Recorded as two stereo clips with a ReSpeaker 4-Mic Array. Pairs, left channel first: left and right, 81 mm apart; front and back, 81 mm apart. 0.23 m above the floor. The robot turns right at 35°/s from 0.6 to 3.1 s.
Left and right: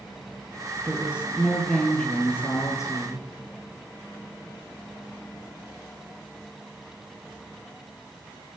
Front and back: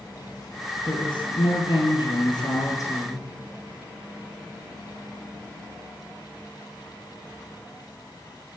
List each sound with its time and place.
0.8 s a woman speaking: 25° right, 6.5 m; by 3.3 s 55° left, 6.5 m